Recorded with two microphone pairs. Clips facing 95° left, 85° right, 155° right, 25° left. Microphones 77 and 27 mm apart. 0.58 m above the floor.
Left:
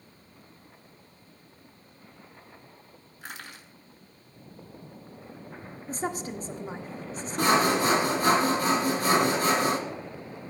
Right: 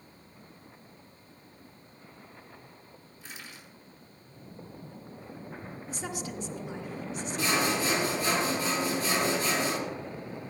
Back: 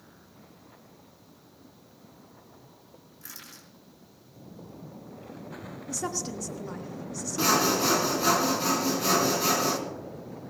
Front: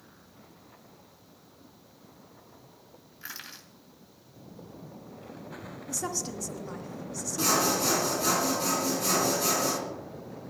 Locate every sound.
3.2 s crushing: 75° left, 3 m
5.9 s a woman speaking: 120° left, 1.3 m
7.4 s sawing: 135° left, 2 m